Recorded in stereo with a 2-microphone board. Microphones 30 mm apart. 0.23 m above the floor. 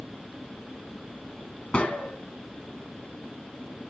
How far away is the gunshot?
About 1.9 m.